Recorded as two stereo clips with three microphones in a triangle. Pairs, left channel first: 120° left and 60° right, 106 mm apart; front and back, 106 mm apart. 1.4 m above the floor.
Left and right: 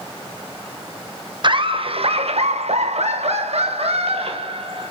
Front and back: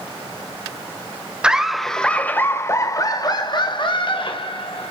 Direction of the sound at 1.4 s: 100° right.